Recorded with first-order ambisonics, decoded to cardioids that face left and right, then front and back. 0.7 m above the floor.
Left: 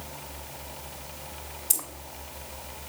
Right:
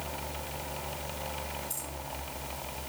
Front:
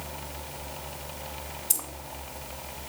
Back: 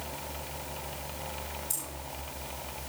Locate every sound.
1.7 s keys jangling: 60° left, 1.8 m